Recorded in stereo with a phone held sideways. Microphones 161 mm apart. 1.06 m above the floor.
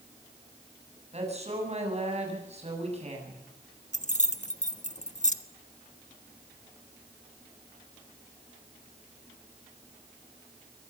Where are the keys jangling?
50° left (ahead or behind), 1.3 m.